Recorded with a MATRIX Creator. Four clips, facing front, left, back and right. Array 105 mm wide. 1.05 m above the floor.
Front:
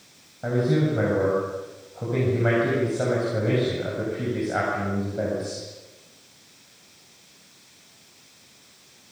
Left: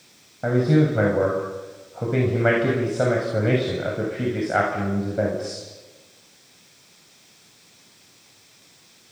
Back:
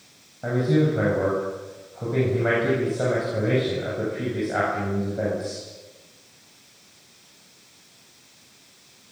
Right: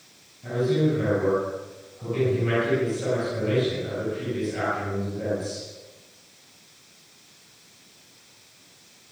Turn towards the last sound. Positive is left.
turn(degrees=90)